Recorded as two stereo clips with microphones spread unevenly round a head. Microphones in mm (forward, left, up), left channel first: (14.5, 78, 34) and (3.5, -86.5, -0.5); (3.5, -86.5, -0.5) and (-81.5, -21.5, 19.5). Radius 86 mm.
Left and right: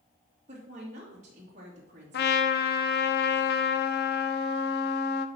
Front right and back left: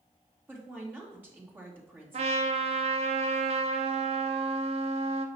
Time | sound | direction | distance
0.5 | a woman speaking | 145° right | 1.9 m
2.1 | a trumpet | 110° left | 0.6 m